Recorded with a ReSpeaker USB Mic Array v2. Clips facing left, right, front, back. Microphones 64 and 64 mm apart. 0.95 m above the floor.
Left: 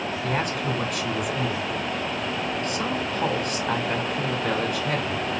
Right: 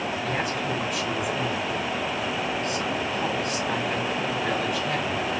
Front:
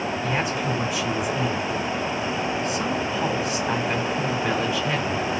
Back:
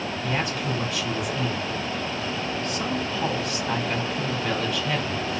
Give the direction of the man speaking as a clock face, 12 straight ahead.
10 o'clock.